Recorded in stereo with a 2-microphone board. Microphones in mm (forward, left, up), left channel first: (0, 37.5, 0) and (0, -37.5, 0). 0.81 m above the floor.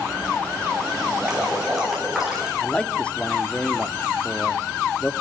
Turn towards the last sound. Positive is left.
turn(degrees=15)  # may be behind; listen again after turning